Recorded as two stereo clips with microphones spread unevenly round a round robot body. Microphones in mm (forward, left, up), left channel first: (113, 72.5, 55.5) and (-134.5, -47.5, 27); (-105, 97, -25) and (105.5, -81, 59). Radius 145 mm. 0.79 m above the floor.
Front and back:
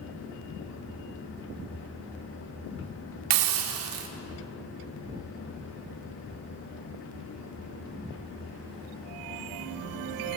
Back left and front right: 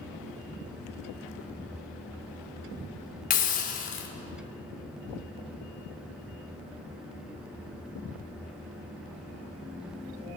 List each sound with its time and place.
3.3 s a hiss: 160° right, 1.3 m